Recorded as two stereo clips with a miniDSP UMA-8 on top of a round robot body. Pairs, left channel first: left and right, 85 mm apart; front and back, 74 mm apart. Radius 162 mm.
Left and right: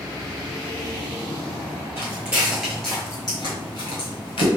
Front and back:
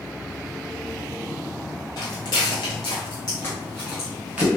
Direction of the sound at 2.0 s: 25° right.